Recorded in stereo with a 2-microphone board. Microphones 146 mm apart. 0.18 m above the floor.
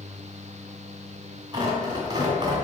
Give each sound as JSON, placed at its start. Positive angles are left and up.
{"t": 1.5, "sound": "tearing paper", "side_deg": -30, "distance_m": 1.8}